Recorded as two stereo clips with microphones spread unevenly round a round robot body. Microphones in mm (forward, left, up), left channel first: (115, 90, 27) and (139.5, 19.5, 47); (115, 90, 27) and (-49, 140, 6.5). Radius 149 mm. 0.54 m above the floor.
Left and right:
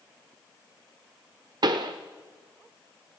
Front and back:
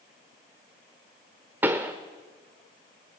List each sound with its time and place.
1.6 s a pop: 120° right, 0.8 m